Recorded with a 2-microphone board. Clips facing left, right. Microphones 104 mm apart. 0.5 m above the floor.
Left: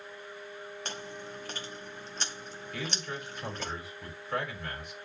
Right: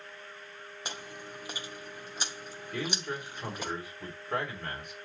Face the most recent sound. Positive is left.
turn(degrees=-50)  # may be behind; listen again after turning